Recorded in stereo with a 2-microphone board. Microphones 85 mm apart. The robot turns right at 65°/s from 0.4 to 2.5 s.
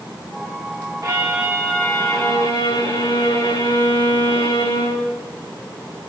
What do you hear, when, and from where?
1.0 s a violin: 35° right, 8 m; by 5.1 s 60° left, 8 m